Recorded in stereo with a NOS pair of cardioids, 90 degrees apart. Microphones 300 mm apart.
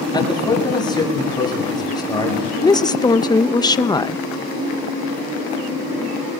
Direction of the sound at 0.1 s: 15° left.